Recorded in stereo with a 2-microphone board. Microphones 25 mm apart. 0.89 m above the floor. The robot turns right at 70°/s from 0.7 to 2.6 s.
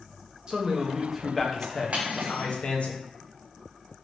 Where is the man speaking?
40° right, 0.7 m; by 2.9 s 95° left, 0.7 m.